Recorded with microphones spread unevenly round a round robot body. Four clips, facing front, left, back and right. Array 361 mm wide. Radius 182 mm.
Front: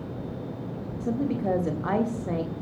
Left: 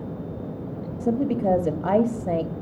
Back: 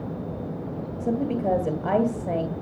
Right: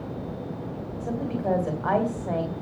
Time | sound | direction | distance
1.0 | a woman speaking | 100° left | 2.5 m